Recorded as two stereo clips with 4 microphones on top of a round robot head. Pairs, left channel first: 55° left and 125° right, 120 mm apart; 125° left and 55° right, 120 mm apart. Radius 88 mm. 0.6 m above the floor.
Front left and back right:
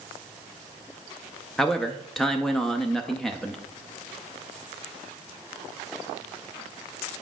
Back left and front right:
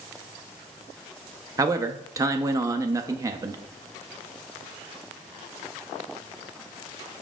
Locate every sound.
1.6 s a man speaking: 30° right, 0.6 m